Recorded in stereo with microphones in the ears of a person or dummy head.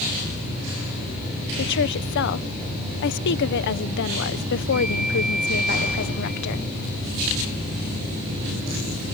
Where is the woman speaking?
60° left (ahead or behind).